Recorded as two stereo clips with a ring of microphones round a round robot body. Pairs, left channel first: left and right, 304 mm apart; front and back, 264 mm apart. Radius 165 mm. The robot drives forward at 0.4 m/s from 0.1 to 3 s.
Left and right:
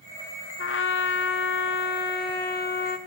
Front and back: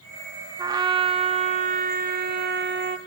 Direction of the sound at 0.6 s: 110° left.